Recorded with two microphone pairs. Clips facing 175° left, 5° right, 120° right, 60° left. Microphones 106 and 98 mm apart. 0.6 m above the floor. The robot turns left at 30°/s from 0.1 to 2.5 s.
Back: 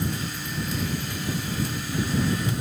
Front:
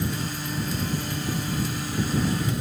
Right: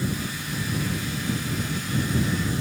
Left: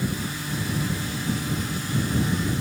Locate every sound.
Only background noise.